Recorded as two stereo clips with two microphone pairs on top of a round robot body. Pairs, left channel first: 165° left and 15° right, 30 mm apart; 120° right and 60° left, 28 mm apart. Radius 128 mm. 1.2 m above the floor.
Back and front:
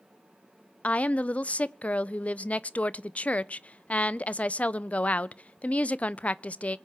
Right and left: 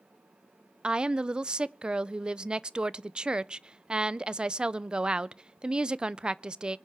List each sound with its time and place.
0.8 s a woman speaking: 120° left, 0.5 m